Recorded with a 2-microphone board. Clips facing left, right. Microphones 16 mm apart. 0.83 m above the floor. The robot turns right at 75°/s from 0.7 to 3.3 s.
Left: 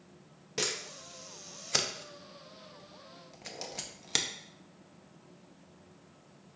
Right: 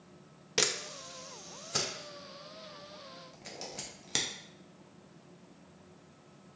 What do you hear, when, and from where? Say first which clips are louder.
0.6 s a camera shutter: right 3 dB; 30° right (ahead or behind), 0.6 m; by 4.3 s 15° left (ahead or behind), 0.6 m